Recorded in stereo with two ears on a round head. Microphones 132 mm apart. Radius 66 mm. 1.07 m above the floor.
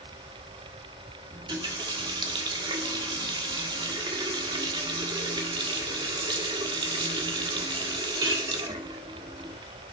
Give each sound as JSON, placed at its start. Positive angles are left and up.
{"t": 1.3, "sound": "a running tap", "side_deg": -30, "distance_m": 1.6}